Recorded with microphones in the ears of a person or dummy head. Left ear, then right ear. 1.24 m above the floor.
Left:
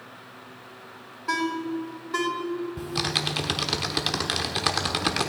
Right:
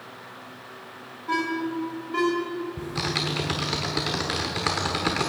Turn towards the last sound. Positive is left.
turn(degrees=25)  # may be behind; listen again after turning